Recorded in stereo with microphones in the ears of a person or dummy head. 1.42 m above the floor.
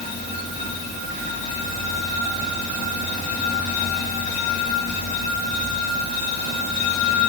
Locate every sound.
Only background noise.